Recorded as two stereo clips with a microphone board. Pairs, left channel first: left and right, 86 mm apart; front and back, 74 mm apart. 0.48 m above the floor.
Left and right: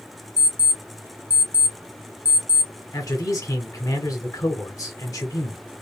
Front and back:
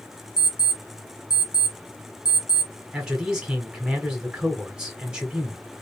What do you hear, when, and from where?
0.4 s an alarm clock: 20° right, 0.8 m
2.9 s a man speaking: 105° left, 1.3 m